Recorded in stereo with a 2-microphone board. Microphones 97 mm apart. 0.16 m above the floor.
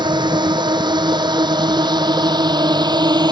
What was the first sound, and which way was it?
A drone, 50° right (ahead or behind).